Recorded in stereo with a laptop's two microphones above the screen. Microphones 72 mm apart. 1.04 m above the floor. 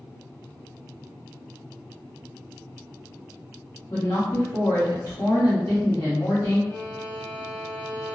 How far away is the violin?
About 0.7 m.